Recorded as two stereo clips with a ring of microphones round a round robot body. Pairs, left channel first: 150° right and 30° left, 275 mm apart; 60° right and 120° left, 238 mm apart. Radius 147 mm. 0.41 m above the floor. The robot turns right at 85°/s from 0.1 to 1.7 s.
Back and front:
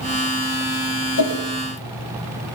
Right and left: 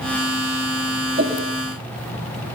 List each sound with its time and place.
1.2 s a whoosh: straight behind, 6 m; by 1.4 s 160° right, 6 m